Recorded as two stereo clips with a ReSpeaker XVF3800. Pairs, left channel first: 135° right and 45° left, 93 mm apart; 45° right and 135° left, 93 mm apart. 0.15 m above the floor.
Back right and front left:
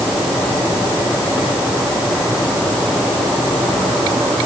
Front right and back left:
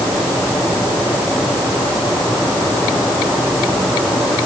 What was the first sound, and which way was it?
Only background noise.